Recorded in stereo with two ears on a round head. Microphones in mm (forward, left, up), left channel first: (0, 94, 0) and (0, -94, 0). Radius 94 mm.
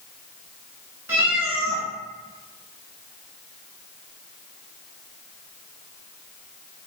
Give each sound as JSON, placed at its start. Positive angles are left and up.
{"t": 1.1, "sound": "a cat meowing", "side_deg": -10, "distance_m": 1.3}